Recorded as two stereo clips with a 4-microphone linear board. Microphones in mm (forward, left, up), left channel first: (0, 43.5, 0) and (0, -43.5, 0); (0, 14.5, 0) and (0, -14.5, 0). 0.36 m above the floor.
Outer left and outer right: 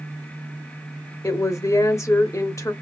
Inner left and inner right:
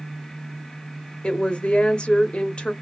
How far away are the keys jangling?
I don't hear keys jangling.